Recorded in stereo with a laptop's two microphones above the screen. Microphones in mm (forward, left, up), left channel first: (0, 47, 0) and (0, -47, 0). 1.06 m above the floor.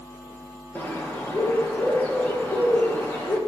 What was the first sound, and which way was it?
A bird, 20° left (ahead or behind).